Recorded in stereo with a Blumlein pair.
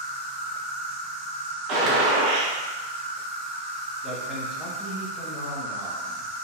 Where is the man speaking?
15° left, 1.4 m.